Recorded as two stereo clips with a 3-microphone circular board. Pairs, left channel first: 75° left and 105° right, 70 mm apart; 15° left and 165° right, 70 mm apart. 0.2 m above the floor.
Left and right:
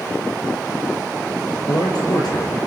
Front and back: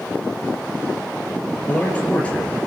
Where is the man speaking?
85° left, 4 m.